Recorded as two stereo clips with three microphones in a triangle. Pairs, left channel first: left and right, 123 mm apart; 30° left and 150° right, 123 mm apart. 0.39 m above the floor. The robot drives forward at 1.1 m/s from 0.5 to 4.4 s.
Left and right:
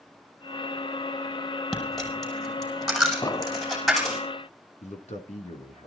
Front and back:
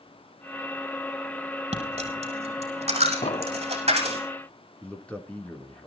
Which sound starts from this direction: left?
A man speaking, at 4.8 s.